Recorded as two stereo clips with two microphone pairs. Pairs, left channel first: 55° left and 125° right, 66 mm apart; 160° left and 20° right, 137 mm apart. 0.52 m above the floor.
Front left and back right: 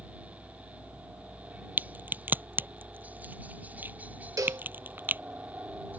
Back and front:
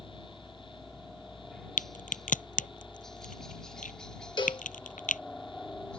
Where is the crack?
175° left.